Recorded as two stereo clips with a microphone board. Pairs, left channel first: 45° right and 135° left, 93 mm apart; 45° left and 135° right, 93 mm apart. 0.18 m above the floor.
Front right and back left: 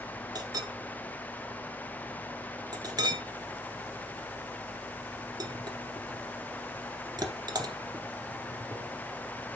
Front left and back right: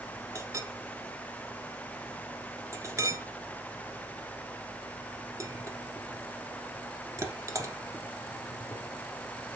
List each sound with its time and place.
0.3 s a clink: 170° left, 1.6 m